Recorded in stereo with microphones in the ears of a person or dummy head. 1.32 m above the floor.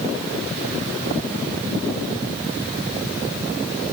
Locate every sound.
Only background noise.